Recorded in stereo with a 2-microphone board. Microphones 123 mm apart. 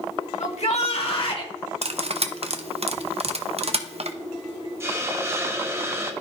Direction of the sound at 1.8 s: 55° right (ahead or behind).